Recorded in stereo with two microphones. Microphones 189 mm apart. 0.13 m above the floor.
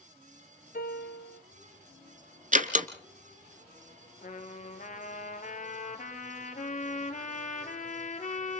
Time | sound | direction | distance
0.7 | a piano | 55° left (ahead or behind) | 3 m
2.5 | a door slam | 45° right (ahead or behind) | 1.4 m
4.2 | a trumpet | 45° left (ahead or behind) | 1.9 m